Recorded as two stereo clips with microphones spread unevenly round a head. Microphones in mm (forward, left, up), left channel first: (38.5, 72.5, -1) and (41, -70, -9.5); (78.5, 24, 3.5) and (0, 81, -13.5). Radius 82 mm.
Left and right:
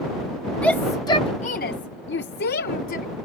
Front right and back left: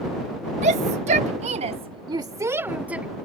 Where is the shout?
175° left; by 3.0 s 65° left.